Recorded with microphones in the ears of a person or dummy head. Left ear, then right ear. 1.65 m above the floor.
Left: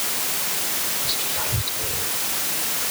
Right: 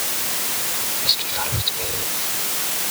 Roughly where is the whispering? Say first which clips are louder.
Right 8 dB; right.